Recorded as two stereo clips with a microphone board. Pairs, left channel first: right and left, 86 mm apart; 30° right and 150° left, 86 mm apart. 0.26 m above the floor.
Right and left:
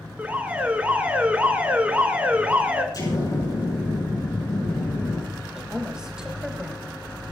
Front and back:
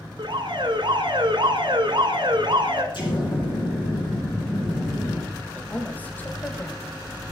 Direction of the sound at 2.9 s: 55° right.